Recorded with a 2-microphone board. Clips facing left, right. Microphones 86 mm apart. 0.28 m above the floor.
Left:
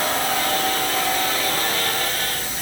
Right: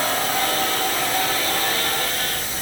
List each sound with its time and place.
Only background noise.